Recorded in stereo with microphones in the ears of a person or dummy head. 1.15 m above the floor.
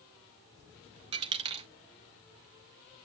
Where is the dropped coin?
30° right (ahead or behind), 0.6 m.